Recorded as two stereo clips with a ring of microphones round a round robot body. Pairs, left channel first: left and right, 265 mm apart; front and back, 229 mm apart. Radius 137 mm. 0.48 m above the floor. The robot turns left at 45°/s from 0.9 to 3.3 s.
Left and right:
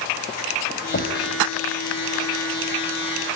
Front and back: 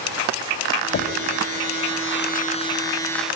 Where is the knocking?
40° left, 2.5 m; by 1.3 s 25° left, 2.5 m.